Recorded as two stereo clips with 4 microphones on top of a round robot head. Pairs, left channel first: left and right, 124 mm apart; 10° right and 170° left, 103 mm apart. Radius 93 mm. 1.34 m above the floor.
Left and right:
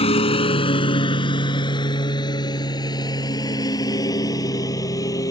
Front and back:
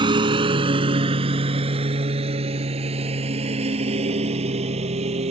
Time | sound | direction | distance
0.0 | a lawn mower | 130° left | ?